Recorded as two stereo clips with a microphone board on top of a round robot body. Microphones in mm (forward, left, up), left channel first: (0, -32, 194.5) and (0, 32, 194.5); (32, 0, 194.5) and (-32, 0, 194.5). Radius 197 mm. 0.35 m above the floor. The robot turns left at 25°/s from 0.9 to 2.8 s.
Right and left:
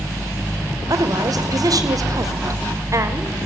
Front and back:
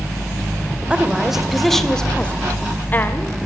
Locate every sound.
0.9 s a woman speaking: 105° left, 3 m; by 3.3 s 60° left, 3 m